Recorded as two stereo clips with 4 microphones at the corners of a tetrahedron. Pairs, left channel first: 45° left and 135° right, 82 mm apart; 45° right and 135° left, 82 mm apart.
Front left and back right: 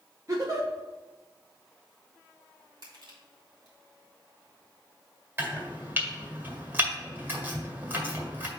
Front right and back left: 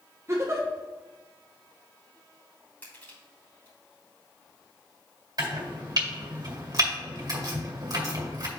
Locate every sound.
0.3 s a giggle: 175° right, 1.2 m
2.8 s crushing: 110° right, 2.5 m
5.4 s chopping: 165° left, 1.9 m